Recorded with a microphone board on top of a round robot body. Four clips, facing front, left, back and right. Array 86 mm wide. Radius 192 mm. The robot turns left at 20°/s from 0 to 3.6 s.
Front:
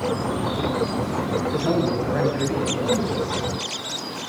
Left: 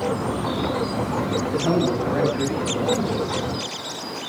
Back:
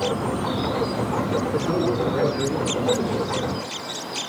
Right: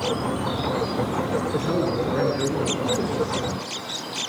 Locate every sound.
1.5 s a man speaking: 45° left, 9.5 m; by 3.4 s 10° left, 9.5 m